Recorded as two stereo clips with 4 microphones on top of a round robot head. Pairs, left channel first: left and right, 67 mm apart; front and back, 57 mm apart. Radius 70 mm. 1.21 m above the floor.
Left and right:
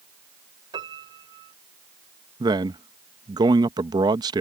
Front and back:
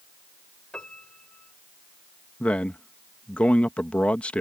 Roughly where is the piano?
Right.